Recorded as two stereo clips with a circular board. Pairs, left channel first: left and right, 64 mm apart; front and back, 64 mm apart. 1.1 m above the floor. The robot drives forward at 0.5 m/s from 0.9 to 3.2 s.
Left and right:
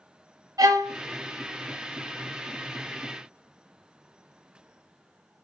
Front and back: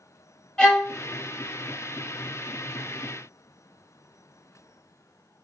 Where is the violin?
80° right, 1.0 m.